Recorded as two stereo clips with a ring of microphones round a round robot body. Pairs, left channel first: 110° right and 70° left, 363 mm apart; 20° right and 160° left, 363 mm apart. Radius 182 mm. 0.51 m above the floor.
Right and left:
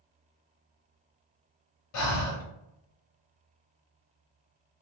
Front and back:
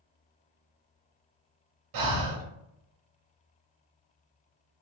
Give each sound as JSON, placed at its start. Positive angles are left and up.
{"t": 1.9, "sound": "breathing", "azimuth_deg": -160, "distance_m": 0.8}